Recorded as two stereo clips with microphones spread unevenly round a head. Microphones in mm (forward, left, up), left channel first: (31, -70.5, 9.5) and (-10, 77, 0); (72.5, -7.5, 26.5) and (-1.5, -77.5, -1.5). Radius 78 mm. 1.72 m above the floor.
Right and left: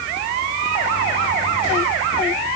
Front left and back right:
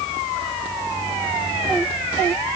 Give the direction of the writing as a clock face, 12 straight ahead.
I don't hear writing.